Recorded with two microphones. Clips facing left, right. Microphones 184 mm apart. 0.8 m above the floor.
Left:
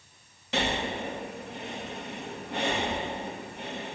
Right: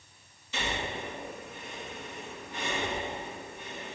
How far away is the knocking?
I don't hear knocking.